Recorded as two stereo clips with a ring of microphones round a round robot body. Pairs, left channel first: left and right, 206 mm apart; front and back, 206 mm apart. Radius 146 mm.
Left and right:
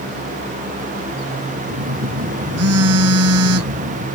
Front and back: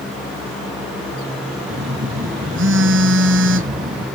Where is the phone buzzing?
125° right.